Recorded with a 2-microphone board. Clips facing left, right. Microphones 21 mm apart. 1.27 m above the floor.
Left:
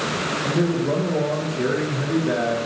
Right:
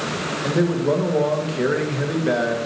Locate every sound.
0.4 s a man speaking: 70° right (ahead or behind), 1.5 m